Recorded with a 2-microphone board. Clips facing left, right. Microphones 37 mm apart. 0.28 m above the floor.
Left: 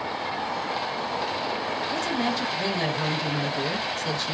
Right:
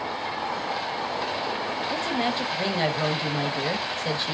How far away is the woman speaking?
About 1.1 m.